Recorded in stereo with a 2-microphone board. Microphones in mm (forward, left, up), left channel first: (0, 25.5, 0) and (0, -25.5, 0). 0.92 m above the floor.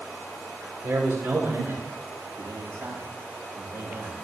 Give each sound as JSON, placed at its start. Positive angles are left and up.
{"t": 0.8, "sound": "a man speaking", "side_deg": -50, "distance_m": 3.0}